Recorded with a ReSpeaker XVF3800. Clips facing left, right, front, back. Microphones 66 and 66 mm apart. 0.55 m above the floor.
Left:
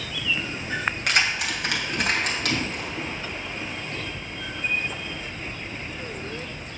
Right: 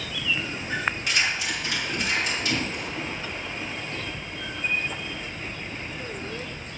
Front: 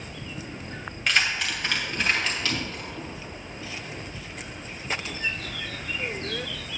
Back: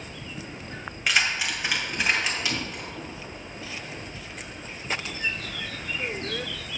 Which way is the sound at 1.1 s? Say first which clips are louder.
Left 2 dB, even; 95° left.